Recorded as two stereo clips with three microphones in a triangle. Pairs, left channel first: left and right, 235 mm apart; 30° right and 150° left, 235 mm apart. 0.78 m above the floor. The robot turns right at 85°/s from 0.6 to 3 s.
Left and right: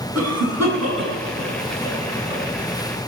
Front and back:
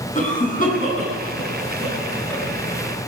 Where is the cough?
90° right, 8.5 m; by 2.4 s 65° left, 8.5 m.